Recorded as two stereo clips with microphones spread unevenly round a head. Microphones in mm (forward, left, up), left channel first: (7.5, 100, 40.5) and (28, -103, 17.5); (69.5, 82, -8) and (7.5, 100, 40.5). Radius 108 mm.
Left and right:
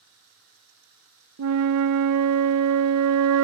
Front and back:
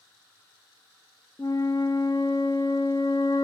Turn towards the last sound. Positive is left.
turn(degrees=-85)